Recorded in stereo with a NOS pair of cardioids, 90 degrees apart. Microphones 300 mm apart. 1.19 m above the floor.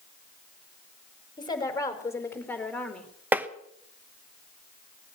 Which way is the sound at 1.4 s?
15° left.